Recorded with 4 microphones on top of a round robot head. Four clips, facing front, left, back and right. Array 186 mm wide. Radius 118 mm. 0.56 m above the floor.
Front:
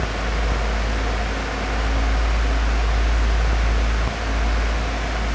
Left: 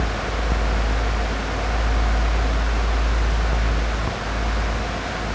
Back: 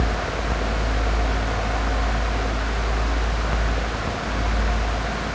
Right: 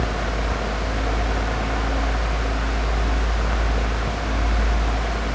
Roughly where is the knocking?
I don't hear knocking.